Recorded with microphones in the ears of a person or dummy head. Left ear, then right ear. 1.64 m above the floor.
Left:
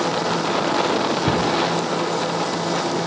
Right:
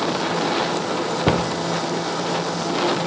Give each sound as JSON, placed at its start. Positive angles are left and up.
{"t": 1.3, "sound": "a cupboard door", "side_deg": -35, "distance_m": 0.6}